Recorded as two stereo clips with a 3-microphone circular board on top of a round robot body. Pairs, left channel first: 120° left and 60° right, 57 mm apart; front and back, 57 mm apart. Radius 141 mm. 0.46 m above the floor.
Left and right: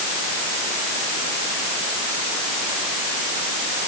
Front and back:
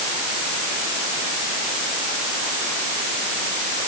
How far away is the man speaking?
I don't hear a man speaking.